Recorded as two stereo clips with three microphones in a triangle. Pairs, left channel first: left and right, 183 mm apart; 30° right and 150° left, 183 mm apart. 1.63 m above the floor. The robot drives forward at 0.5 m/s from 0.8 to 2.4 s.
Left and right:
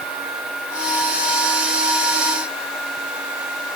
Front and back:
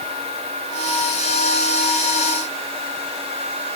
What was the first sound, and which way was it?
Only background noise.